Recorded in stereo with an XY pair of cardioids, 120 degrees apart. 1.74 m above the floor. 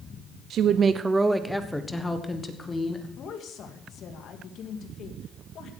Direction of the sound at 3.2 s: 60° left.